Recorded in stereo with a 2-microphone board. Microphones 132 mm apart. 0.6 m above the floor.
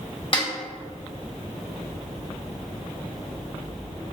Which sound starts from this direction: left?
A snare drum, at 0.3 s.